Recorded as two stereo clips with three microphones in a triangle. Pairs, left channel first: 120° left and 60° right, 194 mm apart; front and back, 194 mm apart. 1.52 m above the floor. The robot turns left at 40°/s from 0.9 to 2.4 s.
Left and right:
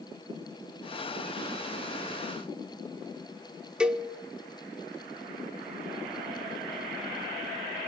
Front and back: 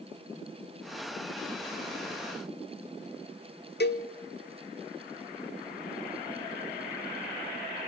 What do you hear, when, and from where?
3.8 s a cowbell: 25° left, 0.6 m